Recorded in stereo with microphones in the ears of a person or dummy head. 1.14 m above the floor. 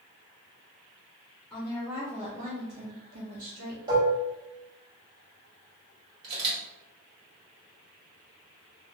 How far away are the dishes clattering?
About 1.6 m.